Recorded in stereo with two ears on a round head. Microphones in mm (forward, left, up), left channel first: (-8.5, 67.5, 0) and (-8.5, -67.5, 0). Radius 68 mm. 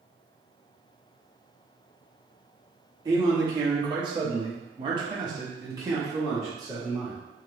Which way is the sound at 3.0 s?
25° right (ahead or behind).